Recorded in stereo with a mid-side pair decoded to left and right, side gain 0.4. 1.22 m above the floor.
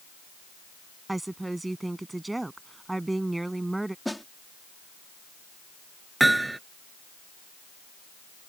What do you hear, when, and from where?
1.1 s a woman speaking: 15° right
4.0 s a snare drum: 5° left
6.2 s hammering: 15° right